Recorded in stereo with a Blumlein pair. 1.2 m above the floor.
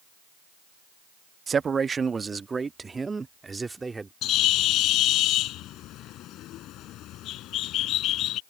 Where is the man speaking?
20° right; by 4.1 s 10° right.